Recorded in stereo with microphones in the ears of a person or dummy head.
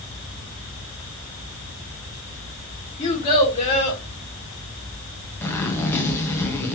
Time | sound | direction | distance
3.0 | a child speaking | 35° left (ahead or behind) | 5.5 m
5.4 | a zipper | 10° left (ahead or behind) | 1.6 m